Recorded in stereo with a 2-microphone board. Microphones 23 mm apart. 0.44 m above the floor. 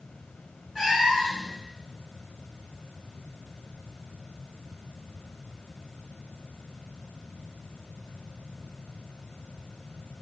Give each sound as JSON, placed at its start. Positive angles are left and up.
{"t": 0.8, "sound": "a cat meowing", "side_deg": -20, "distance_m": 2.0}